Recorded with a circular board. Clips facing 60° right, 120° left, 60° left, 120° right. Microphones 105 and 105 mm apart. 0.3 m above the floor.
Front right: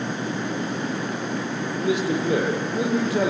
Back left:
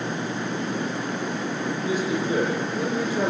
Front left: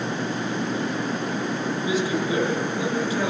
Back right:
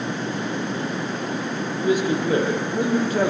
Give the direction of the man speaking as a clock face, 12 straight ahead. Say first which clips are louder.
Front right 4 dB, back right 6 dB; 3 o'clock.